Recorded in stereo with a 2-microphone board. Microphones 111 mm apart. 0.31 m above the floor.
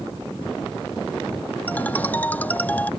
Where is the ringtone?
15° left (ahead or behind).